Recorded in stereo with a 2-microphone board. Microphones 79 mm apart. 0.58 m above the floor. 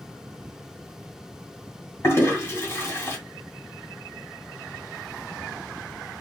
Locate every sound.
2.0 s a toilet flushing: 30° left (ahead or behind), 2 m